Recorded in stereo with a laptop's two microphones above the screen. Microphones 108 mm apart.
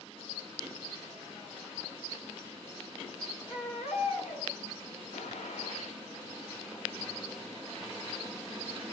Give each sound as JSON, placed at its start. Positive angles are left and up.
{"t": 3.5, "sound": "a baby crying", "side_deg": 60, "distance_m": 8.0}
{"t": 5.1, "sound": "a gunshot", "side_deg": 75, "distance_m": 2.0}